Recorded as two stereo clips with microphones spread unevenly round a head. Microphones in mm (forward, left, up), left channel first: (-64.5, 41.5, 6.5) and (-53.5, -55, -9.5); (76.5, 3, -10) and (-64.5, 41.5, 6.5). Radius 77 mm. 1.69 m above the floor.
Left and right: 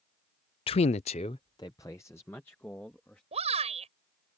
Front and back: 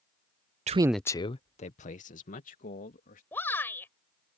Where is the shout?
95° right.